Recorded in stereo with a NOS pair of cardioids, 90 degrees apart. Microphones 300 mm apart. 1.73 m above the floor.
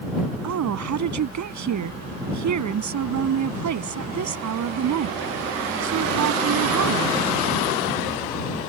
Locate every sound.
0.4 s a woman speaking: 65° right